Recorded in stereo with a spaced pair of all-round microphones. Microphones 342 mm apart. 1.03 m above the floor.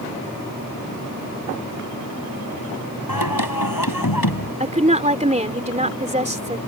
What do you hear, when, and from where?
3.1 s singing: 85° left
4.6 s a woman speaking: 20° right (ahead or behind)